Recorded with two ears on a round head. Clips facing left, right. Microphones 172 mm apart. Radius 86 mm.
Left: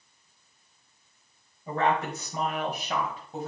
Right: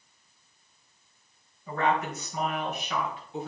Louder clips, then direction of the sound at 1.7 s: Left 1 dB; 25° left (ahead or behind).